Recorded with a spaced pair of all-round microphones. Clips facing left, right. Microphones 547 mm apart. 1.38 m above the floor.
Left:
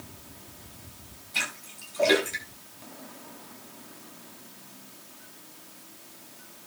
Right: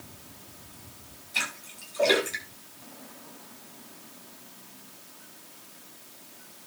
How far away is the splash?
About 8 m.